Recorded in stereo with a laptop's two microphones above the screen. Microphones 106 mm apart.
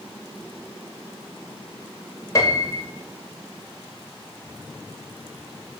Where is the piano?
30° left (ahead or behind), 0.6 m.